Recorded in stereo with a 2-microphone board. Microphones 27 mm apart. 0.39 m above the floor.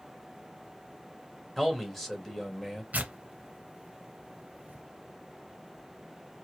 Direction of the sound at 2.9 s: 80° right.